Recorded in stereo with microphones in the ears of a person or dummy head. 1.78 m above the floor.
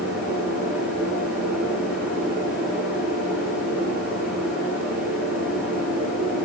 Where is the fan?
Centre (ahead or behind), 8 m.